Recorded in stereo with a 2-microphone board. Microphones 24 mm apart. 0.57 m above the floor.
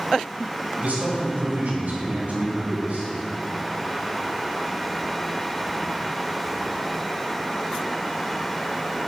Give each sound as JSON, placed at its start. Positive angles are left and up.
{"t": 0.8, "sound": "a man speaking", "side_deg": -75, "distance_m": 3.0}